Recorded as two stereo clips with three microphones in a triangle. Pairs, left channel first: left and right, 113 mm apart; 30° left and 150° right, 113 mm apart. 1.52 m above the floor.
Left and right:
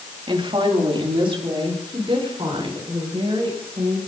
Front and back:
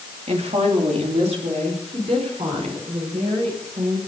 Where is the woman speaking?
130° right, 3 m.